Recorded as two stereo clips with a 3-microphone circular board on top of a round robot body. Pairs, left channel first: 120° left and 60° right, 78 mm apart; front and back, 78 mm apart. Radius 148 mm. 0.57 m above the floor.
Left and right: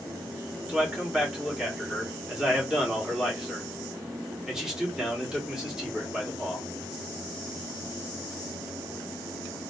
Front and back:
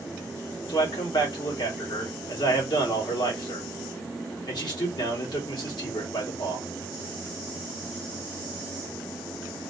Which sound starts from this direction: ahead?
A man speaking, at 0.7 s.